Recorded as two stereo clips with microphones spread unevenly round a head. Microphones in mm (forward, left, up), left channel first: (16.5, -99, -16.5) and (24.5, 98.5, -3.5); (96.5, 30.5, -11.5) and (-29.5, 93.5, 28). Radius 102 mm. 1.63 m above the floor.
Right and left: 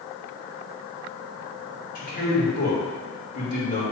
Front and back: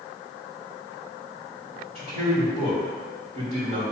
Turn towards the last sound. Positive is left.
turn(degrees=-145)